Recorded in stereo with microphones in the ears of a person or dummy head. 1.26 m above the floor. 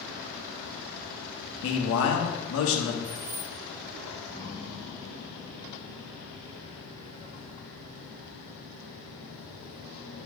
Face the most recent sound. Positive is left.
turn(degrees=-65)  # may be behind; listen again after turning